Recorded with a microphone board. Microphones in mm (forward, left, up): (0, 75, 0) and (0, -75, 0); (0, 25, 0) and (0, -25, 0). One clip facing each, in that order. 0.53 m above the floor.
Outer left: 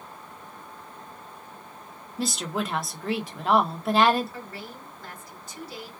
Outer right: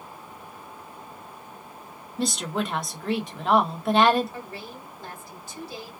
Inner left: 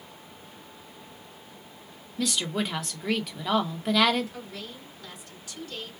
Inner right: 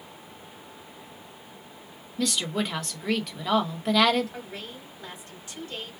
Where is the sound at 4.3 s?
30° right (ahead or behind), 1.6 m.